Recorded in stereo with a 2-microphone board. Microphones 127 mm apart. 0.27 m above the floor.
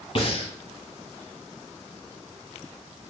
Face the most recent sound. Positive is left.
turn(degrees=50)  # may be behind; listen again after turning